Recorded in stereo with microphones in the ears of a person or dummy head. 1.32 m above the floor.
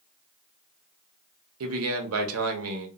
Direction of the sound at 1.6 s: 70° right (ahead or behind).